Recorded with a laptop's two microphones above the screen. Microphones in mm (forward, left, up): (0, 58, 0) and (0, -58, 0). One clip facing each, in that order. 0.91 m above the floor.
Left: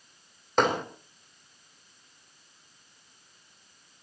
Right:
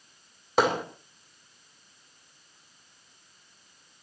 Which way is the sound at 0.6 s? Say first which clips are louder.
Right 1 dB; 5° right (ahead or behind).